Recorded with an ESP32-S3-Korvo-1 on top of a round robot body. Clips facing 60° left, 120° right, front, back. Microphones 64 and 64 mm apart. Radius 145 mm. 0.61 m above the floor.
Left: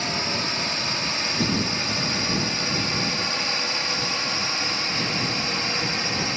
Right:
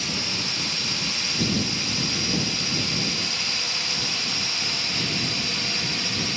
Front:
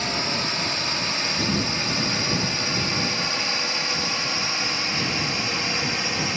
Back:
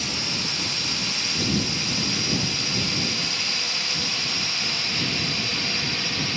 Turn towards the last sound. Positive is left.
turn(degrees=45)